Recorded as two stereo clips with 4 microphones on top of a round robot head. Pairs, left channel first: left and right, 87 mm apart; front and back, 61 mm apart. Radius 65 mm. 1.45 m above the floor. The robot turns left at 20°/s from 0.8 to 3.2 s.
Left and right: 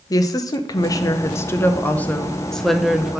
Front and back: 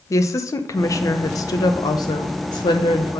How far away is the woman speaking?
About 0.8 m.